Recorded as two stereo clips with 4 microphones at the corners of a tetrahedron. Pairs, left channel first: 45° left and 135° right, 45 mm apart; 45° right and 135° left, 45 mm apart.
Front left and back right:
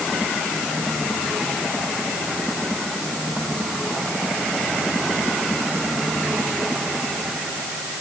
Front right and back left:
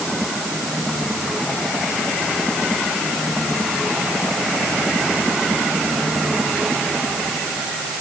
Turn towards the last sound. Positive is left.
No sound to turn to.